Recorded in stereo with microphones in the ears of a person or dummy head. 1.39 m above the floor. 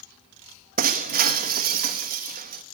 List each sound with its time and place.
0.8 s breaking glass: 45° right (ahead or behind), 1.3 m